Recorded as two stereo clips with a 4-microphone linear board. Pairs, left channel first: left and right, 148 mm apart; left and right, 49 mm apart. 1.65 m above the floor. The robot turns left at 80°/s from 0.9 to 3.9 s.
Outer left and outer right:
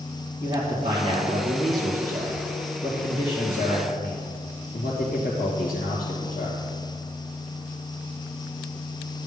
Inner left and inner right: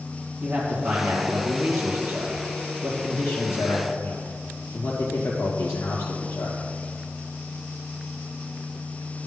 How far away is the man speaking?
About 2.5 m.